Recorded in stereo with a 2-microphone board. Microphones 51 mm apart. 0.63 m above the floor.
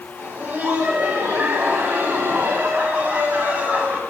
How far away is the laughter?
About 4.5 m.